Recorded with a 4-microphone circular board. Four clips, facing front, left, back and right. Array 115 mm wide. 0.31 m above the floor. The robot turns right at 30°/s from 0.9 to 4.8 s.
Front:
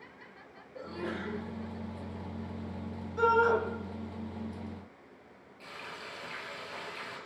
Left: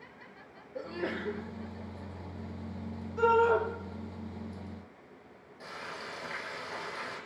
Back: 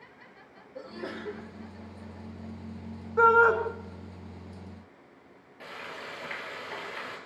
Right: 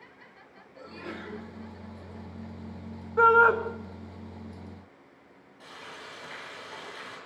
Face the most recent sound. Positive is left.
turn(degrees=160)